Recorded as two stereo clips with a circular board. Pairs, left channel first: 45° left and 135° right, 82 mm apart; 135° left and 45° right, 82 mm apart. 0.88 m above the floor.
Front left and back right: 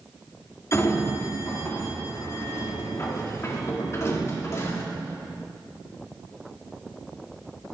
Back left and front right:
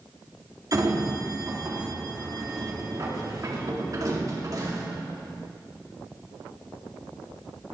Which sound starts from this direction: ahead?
A sliding door, at 0.7 s.